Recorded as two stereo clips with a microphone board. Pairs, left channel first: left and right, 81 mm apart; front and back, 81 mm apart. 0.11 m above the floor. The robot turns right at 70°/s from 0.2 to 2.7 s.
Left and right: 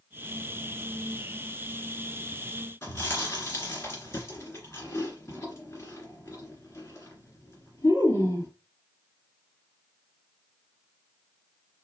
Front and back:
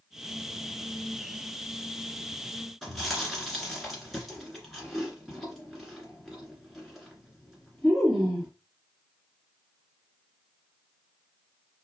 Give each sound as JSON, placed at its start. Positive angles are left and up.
{"t": 2.8, "sound": "chewing", "azimuth_deg": 85, "distance_m": 1.9}